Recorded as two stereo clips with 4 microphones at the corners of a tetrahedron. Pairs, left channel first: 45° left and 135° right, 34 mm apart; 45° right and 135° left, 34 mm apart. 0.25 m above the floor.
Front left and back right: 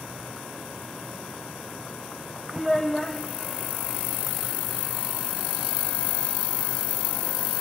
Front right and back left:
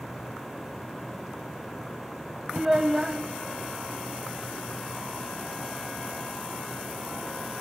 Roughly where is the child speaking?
Left.